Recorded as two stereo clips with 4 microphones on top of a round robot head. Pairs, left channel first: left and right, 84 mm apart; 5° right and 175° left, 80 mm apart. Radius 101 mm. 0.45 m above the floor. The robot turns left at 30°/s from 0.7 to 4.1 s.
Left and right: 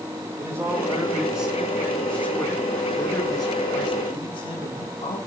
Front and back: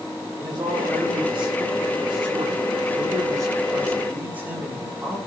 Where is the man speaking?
160° right, 6 m; by 5.2 s 100° left, 6 m.